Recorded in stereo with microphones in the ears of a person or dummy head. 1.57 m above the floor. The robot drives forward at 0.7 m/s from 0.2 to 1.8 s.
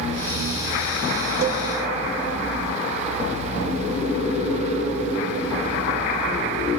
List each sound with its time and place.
1.4 s a cowbell: 60° right (ahead or behind), 0.5 m; by 1.7 s 45° right (ahead or behind), 0.6 m